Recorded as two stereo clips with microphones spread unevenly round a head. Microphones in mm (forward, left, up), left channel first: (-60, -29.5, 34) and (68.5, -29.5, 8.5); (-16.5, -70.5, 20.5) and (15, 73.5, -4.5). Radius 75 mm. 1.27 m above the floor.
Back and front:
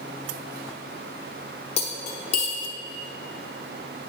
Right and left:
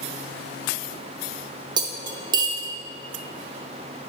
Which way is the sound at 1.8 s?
140° left.